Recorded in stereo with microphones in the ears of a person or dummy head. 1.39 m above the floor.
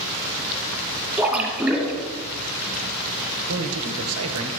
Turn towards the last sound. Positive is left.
turn(degrees=-80)